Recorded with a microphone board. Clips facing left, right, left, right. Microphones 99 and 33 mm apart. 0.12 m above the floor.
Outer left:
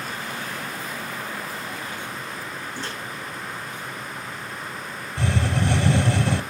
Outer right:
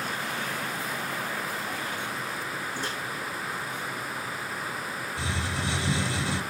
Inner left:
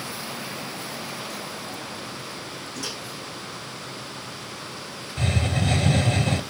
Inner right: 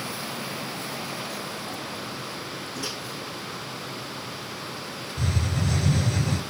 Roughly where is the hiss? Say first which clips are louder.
Outer left 10 dB, inner left 4 dB; left.